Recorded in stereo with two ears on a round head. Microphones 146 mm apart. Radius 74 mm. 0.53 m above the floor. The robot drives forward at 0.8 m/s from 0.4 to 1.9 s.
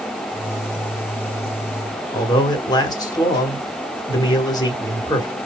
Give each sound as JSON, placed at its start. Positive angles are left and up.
{"t": 2.1, "sound": "a man speaking", "side_deg": 25, "distance_m": 1.5}